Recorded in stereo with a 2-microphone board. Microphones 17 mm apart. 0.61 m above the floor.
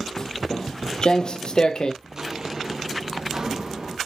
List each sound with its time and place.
0.2 s footsteps: 30° left (ahead or behind), 1.1 m; by 1.9 s 45° left (ahead or behind), 0.8 m
2.0 s footsteps: 30° right (ahead or behind), 1.0 m; by 4.0 s 45° right (ahead or behind), 2 m